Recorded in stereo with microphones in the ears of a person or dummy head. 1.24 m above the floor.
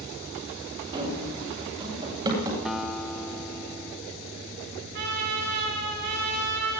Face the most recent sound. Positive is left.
turn(degrees=-55)  # may be behind; listen again after turning